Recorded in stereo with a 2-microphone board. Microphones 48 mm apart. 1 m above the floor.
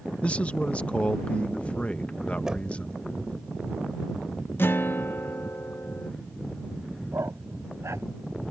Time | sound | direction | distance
0.2 | a man speaking | 25° left (ahead or behind) | ?
2.5 | knocking | 15° right (ahead or behind) | ?
4.6 | a guitar | 50° left (ahead or behind) | ?
7.1 | a dog barking | 75° right (ahead or behind) | ?